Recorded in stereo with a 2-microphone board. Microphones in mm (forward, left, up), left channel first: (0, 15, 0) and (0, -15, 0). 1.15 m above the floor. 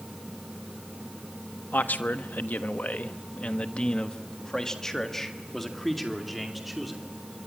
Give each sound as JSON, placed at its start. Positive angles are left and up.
{"t": 1.7, "sound": "a man speaking", "side_deg": 85, "distance_m": 1.3}